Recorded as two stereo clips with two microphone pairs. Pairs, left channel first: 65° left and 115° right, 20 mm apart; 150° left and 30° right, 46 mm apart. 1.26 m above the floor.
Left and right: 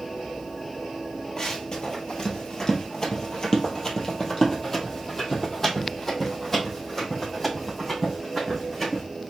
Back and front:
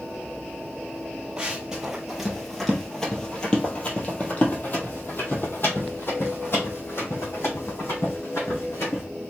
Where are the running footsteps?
35° left, 1.7 m; by 9.0 s 140° left, 4 m.